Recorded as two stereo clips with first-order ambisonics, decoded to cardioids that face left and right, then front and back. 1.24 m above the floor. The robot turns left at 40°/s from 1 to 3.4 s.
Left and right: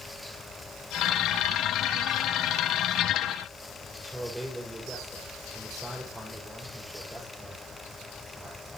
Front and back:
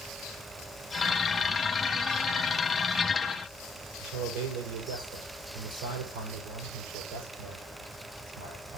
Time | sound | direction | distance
4.0 | a man speaking | 175° right | 6 m